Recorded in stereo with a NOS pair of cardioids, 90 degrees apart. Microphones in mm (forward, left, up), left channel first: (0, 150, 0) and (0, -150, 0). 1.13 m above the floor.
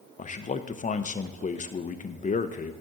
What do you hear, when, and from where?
0.2 s a man speaking: 25° left, 0.8 m